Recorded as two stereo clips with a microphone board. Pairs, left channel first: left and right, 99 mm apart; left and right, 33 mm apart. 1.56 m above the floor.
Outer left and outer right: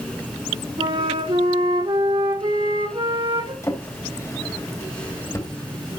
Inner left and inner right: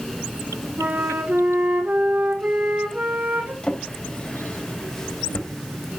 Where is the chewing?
I don't hear chewing.